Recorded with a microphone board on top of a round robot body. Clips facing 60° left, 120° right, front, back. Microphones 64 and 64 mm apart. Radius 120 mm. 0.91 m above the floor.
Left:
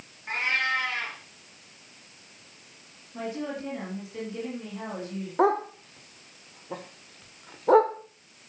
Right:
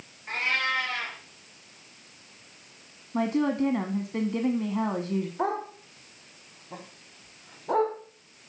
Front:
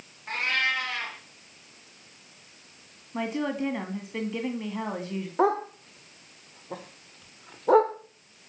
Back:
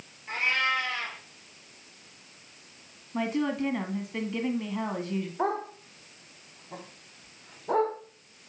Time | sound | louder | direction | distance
0.3 | a cat meowing | left 1 dB, even | 20° right | 4.5 m
3.1 | a woman speaking | right 8 dB, back 1 dB | 85° right | 1.4 m
5.4 | a dog barking | left 6 dB, front 8 dB | 30° left | 1.4 m